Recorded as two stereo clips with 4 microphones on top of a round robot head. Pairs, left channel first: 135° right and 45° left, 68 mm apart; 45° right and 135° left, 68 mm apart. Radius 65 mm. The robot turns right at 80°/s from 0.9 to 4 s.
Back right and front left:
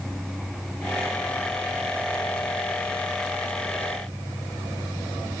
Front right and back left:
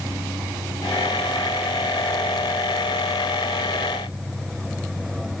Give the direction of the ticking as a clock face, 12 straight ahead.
No ticking in this recording.